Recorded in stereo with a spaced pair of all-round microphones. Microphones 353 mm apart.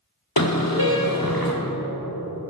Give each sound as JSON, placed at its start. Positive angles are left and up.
{"t": 0.4, "sound": "a car horn", "side_deg": 70, "distance_m": 2.5}